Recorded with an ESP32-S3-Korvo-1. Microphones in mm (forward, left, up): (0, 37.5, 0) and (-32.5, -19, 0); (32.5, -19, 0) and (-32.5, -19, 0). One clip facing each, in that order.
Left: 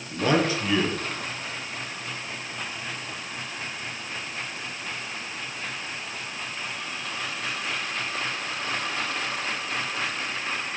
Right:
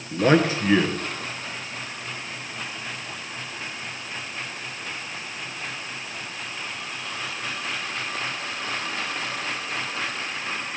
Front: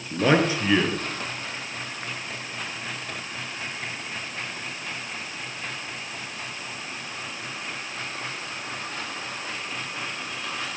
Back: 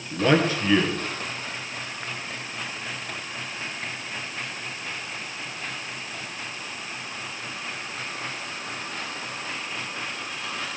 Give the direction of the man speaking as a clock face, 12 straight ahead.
3 o'clock.